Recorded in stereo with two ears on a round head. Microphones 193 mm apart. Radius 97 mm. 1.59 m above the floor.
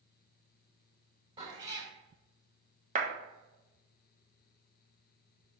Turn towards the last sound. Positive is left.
turn(degrees=-35)  # may be behind; listen again after turning